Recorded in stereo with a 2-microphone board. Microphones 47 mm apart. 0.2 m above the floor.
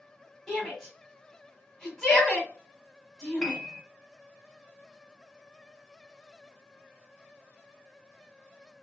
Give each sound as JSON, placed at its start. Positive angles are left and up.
{"t": 0.5, "sound": "a shout", "side_deg": 5, "distance_m": 1.6}
{"t": 3.4, "sound": "a piano", "side_deg": 5, "distance_m": 0.7}